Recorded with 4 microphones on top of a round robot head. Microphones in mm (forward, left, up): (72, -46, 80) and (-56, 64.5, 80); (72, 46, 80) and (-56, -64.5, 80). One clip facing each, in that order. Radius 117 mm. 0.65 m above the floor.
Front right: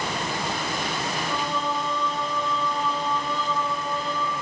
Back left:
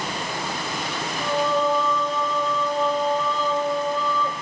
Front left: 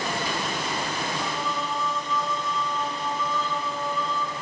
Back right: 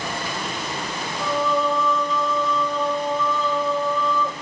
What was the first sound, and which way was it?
Singing, 175° right.